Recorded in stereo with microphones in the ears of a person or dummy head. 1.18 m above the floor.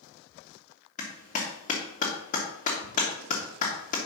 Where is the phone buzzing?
No phone buzzing in this recording.